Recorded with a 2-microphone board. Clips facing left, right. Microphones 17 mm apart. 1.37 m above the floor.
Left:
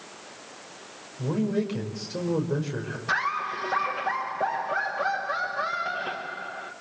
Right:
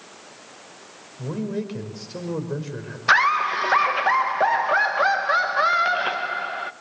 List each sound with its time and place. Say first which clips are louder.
1.2 s a man speaking: left 2 dB; 5° left (ahead or behind), 4.5 m
3.1 s laughter: right 10 dB; 50° right (ahead or behind), 1.4 m